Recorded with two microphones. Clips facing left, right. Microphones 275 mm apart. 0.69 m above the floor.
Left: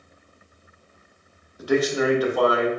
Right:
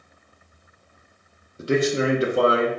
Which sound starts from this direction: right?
A man speaking, at 1.6 s.